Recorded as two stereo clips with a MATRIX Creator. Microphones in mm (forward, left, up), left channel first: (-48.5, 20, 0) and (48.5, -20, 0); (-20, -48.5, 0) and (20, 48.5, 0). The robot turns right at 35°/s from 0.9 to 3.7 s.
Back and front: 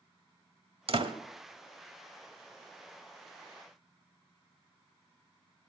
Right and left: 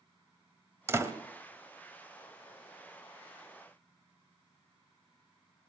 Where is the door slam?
Straight ahead, 1.5 m; by 1.1 s 10° left, 1.5 m.